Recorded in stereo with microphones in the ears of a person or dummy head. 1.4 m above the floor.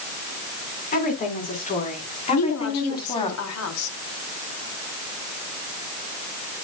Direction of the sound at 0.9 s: 45° left (ahead or behind).